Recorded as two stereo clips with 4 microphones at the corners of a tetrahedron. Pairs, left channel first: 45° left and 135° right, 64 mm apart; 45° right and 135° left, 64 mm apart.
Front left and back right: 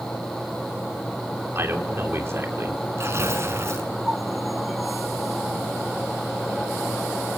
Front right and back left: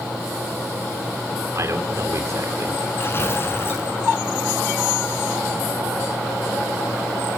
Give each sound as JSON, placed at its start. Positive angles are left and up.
{"t": 1.6, "sound": "a man speaking", "azimuth_deg": 175, "distance_m": 3.0}
{"t": 3.0, "sound": "tearing paper", "azimuth_deg": -95, "distance_m": 5.5}